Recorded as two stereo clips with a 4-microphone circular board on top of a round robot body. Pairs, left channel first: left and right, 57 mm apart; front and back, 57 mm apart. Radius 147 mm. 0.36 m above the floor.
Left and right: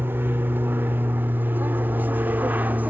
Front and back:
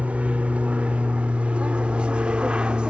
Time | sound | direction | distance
0.0 | an aircraft | 125° right | ?